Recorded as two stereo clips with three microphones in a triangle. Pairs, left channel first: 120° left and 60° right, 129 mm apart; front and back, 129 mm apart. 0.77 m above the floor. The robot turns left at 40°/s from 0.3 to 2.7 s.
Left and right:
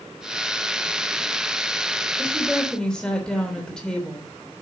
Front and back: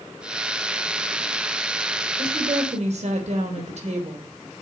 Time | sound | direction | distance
2.2 | a woman speaking | 135° right | 3.5 m